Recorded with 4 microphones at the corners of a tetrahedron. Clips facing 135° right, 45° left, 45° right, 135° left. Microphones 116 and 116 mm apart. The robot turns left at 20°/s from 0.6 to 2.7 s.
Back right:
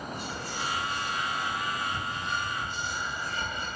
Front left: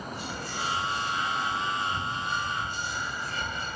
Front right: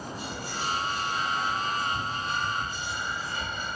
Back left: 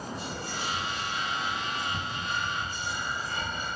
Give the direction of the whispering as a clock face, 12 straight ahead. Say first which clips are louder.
Even, front right 1 dB; 6 o'clock.